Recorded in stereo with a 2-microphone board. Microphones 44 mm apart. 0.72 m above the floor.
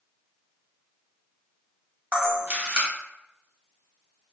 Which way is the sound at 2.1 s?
40° right (ahead or behind).